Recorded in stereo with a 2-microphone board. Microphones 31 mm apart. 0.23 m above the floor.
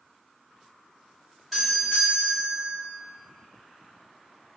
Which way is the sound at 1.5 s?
5° left (ahead or behind).